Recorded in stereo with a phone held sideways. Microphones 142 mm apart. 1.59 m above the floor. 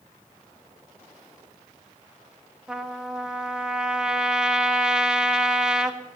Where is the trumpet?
5° right (ahead or behind), 1.6 m.